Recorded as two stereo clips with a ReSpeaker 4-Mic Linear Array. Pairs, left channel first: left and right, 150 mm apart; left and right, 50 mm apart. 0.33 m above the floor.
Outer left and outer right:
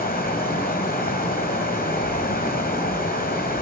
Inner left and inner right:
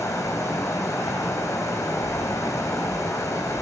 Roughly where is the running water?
Left.